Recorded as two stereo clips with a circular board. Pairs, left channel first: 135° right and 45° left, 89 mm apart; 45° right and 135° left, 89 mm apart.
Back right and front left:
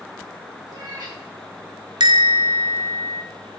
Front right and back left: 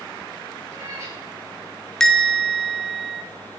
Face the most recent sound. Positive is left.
turn(degrees=40)